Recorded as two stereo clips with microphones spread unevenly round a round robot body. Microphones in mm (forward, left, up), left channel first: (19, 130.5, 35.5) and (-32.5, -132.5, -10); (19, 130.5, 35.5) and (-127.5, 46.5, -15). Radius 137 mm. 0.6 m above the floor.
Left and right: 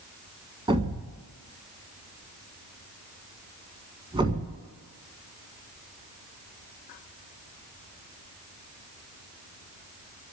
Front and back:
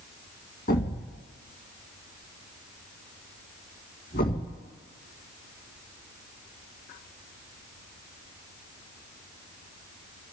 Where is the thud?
25° right, 1.6 m.